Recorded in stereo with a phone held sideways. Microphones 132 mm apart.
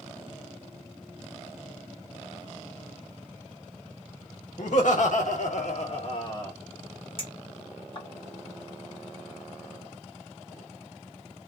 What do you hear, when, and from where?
4.6 s laughter: 65° left (ahead or behind), 1.6 m; by 6.5 s 25° left (ahead or behind), 1.1 m
7.2 s a clink: 40° left (ahead or behind), 1.6 m